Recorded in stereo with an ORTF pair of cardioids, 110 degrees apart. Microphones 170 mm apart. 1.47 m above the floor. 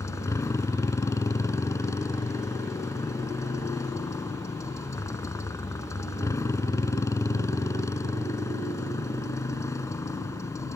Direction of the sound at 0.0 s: 20° left.